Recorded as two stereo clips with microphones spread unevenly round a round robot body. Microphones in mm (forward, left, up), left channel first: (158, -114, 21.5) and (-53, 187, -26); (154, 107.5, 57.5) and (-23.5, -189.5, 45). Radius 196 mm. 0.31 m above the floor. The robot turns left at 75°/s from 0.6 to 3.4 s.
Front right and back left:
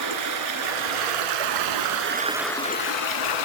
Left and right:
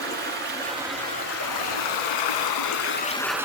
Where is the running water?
175° left, 0.8 m; by 3.5 s 35° right, 0.8 m.